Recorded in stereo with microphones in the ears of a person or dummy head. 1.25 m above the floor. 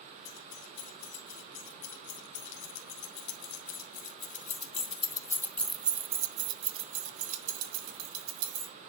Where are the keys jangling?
75° left (ahead or behind), 3.5 m; by 8.8 s 60° right (ahead or behind), 2 m.